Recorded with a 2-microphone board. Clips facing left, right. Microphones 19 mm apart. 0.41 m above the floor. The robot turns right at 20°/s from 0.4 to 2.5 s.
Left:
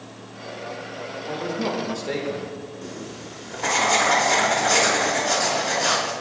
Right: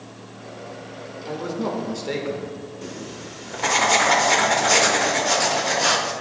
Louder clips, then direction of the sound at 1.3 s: Even; 15° right (ahead or behind).